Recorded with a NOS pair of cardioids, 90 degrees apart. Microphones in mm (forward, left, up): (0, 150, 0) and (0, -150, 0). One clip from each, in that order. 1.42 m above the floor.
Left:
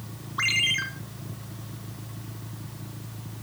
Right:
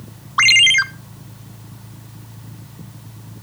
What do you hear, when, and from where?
0.4 s a ringtone: 65° right, 0.8 m